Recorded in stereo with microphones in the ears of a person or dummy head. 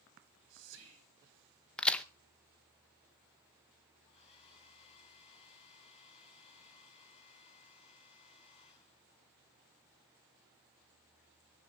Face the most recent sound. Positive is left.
turn(degrees=30)  # may be behind; listen again after turning